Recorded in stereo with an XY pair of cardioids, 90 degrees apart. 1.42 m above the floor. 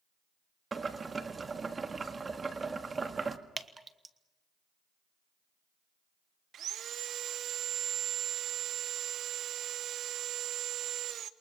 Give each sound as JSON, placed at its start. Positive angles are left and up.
{"t": 0.7, "sound": "boiling", "azimuth_deg": -35, "distance_m": 1.8}
{"t": 3.6, "sound": "dripping", "azimuth_deg": -25, "distance_m": 1.5}
{"t": 6.5, "sound": "sawing", "azimuth_deg": -70, "distance_m": 1.0}